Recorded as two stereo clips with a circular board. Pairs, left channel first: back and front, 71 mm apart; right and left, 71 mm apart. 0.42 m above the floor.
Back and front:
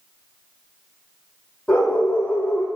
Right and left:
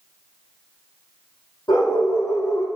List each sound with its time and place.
1.7 s a dog barking: 105° right, 5.5 m